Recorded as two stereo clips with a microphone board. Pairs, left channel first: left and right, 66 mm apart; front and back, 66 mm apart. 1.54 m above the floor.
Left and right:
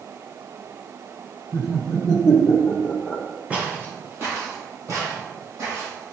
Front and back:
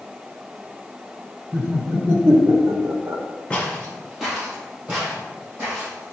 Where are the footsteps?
55° right, 1.6 m; by 6.1 s 125° right, 4 m.